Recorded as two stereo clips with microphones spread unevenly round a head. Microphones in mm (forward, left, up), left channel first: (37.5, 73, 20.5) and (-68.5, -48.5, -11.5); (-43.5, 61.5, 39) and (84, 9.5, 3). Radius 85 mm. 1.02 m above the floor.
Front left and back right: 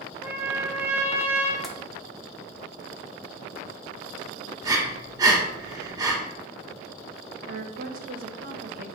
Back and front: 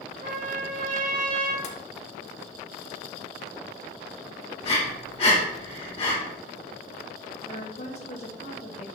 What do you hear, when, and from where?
0.2 s a trumpet: 45° right, 0.7 m
1.6 s tapping: 155° left, 0.6 m
4.6 s breathing: 155° left, 1.2 m
7.5 s a woman speaking: 150° right, 0.6 m